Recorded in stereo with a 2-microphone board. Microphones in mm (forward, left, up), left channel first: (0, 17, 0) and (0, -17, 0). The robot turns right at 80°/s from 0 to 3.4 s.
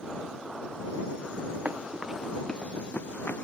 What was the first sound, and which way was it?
Running footsteps, 50° right (ahead or behind).